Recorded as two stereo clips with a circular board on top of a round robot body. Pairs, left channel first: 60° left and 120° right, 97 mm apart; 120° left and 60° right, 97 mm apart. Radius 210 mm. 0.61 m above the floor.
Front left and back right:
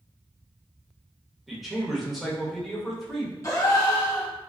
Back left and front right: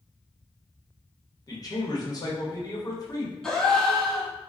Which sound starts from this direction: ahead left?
A gasp, at 3.4 s.